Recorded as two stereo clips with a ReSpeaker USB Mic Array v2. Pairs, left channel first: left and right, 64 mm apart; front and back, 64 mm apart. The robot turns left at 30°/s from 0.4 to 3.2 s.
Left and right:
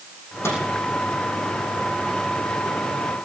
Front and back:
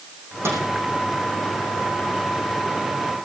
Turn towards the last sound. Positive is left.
turn(degrees=50)